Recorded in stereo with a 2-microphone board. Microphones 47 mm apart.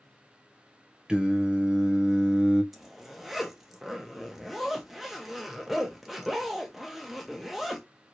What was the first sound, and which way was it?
Singing, 20° right (ahead or behind).